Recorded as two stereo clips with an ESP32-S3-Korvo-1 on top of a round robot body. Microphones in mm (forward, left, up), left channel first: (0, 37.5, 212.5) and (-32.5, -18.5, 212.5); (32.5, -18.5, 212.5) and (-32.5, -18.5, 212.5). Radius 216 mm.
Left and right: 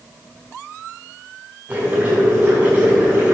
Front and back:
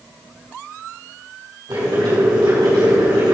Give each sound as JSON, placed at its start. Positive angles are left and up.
{"t": 1.7, "sound": "boiling", "azimuth_deg": 180, "distance_m": 4.5}